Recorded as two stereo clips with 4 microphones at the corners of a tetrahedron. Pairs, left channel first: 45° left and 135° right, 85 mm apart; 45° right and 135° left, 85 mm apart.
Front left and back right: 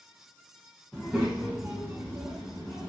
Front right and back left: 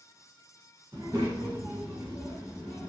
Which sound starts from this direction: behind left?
A child speaking, at 0.9 s.